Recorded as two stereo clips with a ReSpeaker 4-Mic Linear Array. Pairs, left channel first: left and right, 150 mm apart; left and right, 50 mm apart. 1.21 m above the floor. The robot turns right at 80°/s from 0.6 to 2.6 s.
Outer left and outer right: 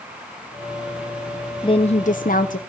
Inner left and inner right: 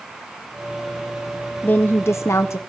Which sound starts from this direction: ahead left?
A woman speaking, at 1.6 s.